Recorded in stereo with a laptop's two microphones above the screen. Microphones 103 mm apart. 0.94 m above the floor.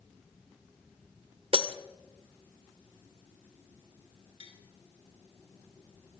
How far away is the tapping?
About 3 m.